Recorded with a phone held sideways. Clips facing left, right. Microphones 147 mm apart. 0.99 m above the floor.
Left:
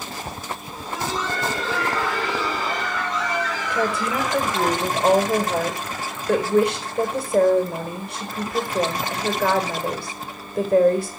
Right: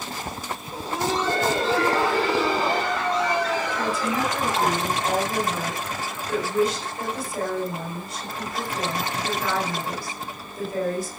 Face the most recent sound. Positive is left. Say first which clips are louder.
# left 2 dB
turn(degrees=75)  # may be behind; listen again after turning